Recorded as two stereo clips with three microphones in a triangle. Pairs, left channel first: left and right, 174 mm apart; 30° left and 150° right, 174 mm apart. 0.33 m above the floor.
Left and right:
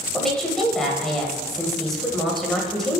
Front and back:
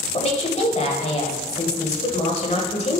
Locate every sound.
0.1 s a woman speaking: straight ahead, 1.3 m